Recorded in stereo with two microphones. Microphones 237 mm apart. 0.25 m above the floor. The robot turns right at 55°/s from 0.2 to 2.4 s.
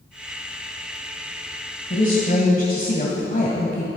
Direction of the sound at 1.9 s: 35° left (ahead or behind).